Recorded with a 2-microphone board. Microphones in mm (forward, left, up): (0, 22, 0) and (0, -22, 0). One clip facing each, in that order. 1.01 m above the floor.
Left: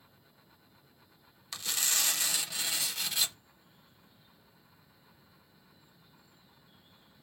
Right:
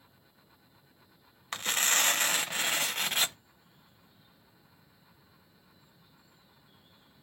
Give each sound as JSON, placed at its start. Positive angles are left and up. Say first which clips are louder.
{"t": 1.5, "sound": "tearing paper", "louder": "right 6 dB", "side_deg": -45, "distance_m": 0.6}